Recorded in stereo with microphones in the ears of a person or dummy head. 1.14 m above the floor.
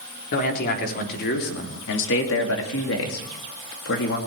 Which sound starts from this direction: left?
A man speaking, at 0.3 s.